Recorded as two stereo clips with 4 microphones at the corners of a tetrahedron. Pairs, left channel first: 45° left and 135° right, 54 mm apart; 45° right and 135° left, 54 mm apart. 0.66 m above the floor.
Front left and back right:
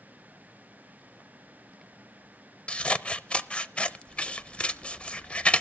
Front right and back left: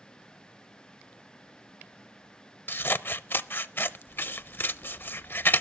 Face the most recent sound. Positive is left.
turn(degrees=-15)